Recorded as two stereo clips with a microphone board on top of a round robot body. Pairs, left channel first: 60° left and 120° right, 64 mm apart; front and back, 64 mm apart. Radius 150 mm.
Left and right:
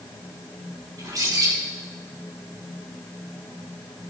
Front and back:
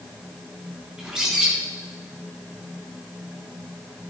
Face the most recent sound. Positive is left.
turn(degrees=-100)